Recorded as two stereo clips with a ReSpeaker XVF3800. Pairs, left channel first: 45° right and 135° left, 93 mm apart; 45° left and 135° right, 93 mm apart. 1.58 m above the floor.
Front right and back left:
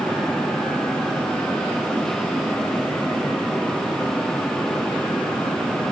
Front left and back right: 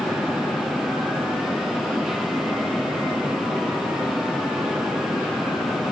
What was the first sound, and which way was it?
Only background noise.